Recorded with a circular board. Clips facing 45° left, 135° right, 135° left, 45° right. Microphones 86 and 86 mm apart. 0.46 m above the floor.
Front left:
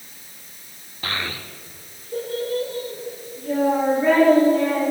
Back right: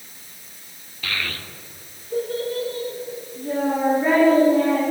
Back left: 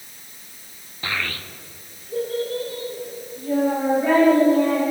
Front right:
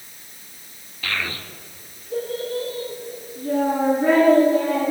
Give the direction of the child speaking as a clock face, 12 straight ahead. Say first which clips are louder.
Front left 1 dB, even; 9 o'clock.